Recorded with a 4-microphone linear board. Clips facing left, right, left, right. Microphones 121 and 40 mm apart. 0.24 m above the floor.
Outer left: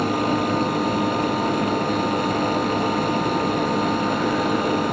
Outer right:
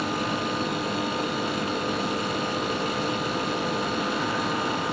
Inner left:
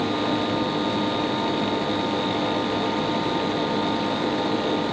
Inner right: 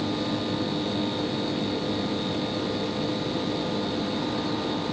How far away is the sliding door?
No sliding door in this recording.